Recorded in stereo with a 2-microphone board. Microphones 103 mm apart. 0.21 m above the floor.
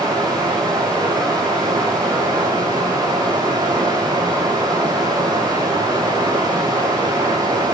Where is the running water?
35° right (ahead or behind), 5 m.